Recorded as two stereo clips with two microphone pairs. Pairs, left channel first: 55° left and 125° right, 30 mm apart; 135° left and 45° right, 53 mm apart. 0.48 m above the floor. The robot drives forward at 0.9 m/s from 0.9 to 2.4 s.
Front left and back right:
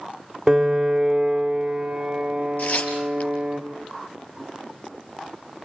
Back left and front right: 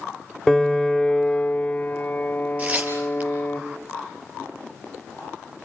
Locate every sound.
0.5 s a piano: 145° right, 0.8 m; by 3.6 s 175° right, 1.8 m
2.6 s tearing paper: 20° left, 4.5 m